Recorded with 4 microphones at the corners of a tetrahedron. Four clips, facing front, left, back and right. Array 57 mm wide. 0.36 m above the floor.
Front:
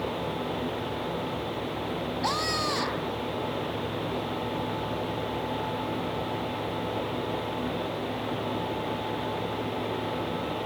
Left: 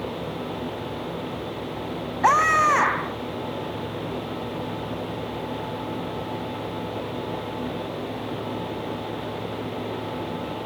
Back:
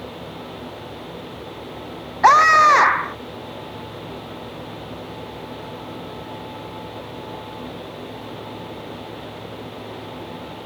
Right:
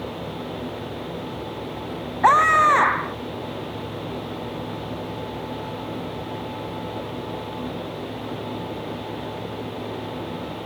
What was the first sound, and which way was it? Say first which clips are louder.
A scream: right 3 dB, back 19 dB; 170° right.